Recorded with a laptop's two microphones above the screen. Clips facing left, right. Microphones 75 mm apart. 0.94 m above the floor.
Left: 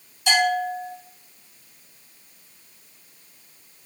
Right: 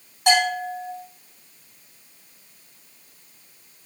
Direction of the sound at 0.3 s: 65° right (ahead or behind).